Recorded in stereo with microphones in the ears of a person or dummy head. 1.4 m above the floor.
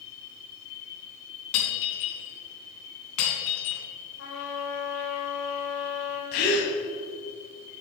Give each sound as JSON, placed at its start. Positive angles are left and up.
{"t": 1.5, "sound": "breaking glass", "side_deg": 70, "distance_m": 3.5}
{"t": 4.2, "sound": "a trumpet", "side_deg": 70, "distance_m": 2.5}
{"t": 6.3, "sound": "a gasp", "side_deg": 45, "distance_m": 1.7}